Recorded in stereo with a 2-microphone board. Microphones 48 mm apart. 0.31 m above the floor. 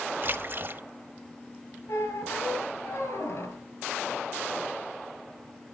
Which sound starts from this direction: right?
A splash, at 0.2 s.